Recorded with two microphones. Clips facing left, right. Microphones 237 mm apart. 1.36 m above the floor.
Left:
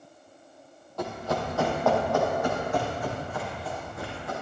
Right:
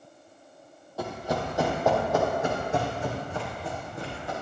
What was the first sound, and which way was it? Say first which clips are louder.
Running footsteps: even; 10° right (ahead or behind).